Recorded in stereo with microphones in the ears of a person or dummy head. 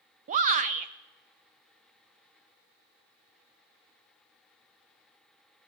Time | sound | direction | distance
0.3 | a shout | 40° right (ahead or behind) | 0.5 m